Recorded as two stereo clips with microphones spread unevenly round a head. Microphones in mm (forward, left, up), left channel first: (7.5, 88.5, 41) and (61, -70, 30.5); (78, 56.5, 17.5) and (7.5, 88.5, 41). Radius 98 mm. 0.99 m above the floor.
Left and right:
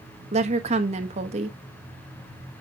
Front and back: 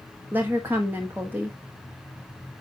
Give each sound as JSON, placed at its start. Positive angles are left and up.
{"t": 0.3, "sound": "a woman speaking", "azimuth_deg": -125, "distance_m": 1.1}